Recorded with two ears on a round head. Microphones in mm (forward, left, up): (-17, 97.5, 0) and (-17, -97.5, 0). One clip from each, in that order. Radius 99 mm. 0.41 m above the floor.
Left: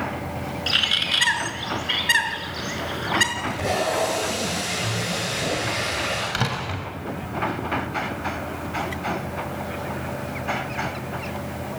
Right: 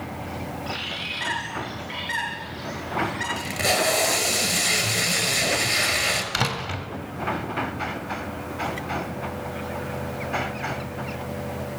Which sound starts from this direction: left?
A bird, at 0.7 s.